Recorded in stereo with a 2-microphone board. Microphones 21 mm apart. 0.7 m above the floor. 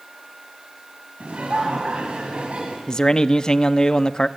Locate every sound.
1.2 s laughter: 80° right, 4.5 m
2.9 s a man speaking: 35° left (ahead or behind), 0.7 m